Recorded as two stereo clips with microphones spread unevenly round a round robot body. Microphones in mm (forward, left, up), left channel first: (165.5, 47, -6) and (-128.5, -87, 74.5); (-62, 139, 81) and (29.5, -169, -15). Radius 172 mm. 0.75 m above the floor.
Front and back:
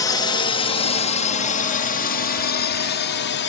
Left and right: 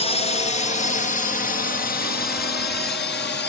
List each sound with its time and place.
0.0 s a drone: 20° left; by 3.5 s 40° left